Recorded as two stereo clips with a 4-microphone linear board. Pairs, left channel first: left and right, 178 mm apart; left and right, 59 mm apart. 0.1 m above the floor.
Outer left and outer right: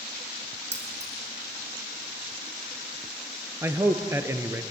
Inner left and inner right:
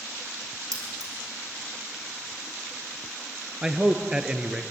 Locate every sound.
0.7 s keys jangling: 75° right (ahead or behind), 4.5 m
3.6 s a man speaking: 15° right (ahead or behind), 1.3 m